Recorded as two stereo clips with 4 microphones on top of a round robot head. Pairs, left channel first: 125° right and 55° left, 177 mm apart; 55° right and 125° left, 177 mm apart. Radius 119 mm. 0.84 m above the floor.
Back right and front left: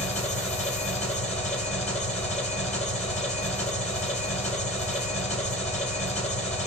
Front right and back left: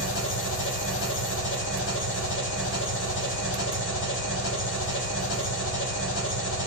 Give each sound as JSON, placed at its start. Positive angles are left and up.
{"t": 0.0, "sound": "an engine running", "azimuth_deg": -70, "distance_m": 2.5}